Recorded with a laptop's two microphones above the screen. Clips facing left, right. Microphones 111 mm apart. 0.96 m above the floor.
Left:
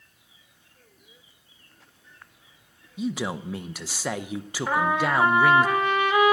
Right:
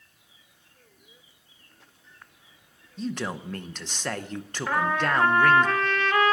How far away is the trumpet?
About 2.0 m.